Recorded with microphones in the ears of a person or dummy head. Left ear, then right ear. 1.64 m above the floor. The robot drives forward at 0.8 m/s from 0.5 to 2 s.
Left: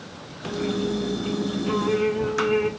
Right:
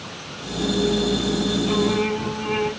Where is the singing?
50° left (ahead or behind), 1.1 m; by 2.7 s 45° left (ahead or behind), 1.3 m.